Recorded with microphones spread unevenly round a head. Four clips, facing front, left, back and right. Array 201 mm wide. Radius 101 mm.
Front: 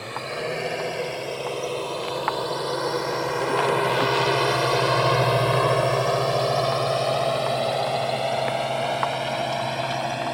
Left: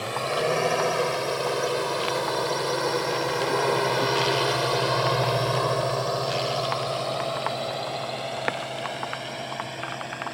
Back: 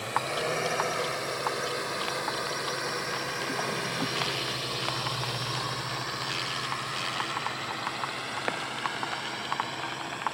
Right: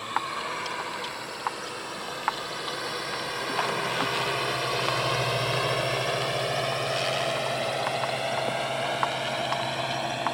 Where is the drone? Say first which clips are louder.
Left 5 dB, even; 75° left; by 10.3 s 15° right.